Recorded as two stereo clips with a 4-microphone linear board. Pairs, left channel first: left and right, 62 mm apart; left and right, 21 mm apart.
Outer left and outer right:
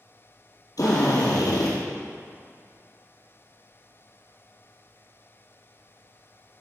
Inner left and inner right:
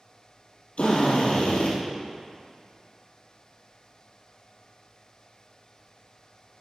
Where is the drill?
80° left, 2.5 m.